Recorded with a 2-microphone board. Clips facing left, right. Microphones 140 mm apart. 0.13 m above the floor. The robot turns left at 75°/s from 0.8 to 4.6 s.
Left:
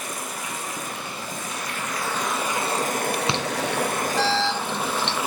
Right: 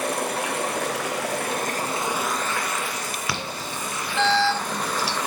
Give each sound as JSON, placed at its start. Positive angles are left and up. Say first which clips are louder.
{"t": 0.0, "sound": "running water", "louder": "right 8 dB", "azimuth_deg": -70, "distance_m": 1.4}
{"t": 3.3, "sound": "an alarm", "louder": "left 6 dB", "side_deg": 25, "distance_m": 1.9}